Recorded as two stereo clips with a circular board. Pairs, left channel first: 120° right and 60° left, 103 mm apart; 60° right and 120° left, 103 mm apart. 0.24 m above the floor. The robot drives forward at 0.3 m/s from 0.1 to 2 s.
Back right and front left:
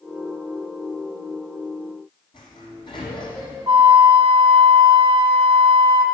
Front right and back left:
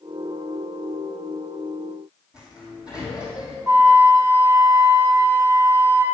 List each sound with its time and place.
2.3 s a sliding door: 160° right, 2 m
3.7 s a flute: 75° left, 1.0 m